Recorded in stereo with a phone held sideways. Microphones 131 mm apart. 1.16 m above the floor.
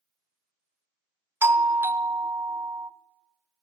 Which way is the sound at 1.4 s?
20° right (ahead or behind).